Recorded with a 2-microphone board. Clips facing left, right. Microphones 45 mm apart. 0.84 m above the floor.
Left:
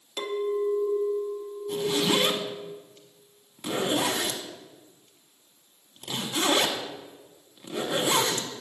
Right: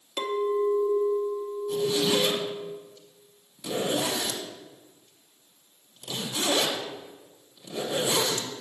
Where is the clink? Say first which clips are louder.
Right 2 dB; 20° right (ahead or behind), 0.8 m.